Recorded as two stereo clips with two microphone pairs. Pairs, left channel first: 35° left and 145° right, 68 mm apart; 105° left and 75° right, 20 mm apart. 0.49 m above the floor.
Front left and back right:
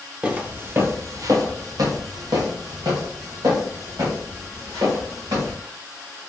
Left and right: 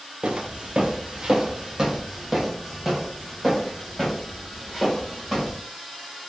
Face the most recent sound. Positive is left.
turn(degrees=-165)